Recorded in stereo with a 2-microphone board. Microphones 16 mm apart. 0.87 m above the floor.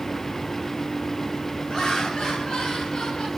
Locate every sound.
1.7 s laughter: 75° left (ahead or behind), 4.5 m; by 3.3 s 85° left, 4.5 m